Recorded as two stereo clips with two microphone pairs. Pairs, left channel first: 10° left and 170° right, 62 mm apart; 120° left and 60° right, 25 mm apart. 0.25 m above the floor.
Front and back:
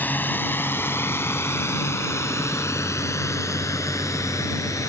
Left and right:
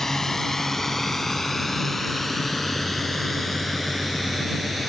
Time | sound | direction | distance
0.0 | a drone | 55° left | ?